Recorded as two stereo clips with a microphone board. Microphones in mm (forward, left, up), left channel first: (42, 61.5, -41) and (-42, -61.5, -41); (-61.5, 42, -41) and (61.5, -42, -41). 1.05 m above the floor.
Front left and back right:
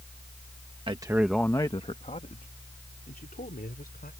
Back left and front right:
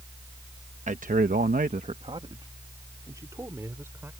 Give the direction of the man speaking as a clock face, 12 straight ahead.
2 o'clock.